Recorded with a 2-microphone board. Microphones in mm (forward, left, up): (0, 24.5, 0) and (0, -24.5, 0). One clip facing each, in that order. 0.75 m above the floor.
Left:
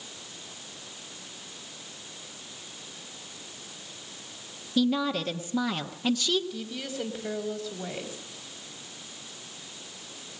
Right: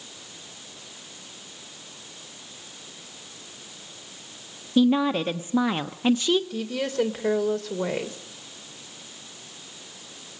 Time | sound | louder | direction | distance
4.8 | a woman speaking | right 6 dB | 30° right (ahead or behind) | 1.0 m
6.5 | a woman speaking | right 8 dB | 70° right (ahead or behind) | 2.5 m